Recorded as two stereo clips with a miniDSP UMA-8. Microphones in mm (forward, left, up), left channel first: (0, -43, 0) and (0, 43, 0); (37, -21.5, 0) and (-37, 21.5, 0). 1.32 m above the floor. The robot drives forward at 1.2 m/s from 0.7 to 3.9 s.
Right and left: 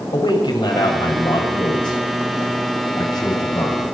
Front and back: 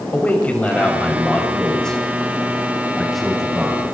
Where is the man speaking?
100° right, 7.5 m; by 3.8 s 125° right, 9 m.